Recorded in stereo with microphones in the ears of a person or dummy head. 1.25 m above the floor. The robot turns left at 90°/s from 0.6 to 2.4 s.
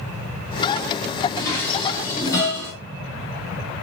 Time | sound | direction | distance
1.4 | dishes clattering | 70° left (ahead or behind) | 1.7 m